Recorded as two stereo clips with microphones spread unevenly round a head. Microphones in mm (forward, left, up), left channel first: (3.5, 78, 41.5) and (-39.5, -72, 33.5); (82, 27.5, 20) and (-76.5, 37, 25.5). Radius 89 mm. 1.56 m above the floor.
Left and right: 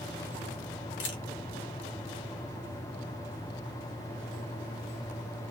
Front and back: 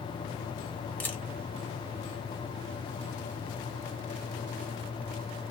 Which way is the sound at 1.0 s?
75° left.